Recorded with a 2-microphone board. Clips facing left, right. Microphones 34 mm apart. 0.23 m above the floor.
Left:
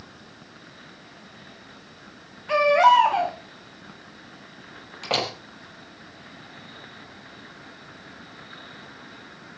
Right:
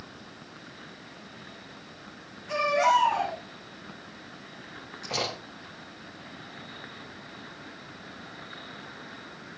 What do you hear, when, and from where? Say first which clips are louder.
2.5 s a baby crying: left 7 dB; 45° left (ahead or behind), 6.5 m
5.0 s a door slam: left 6 dB; 60° left (ahead or behind), 6 m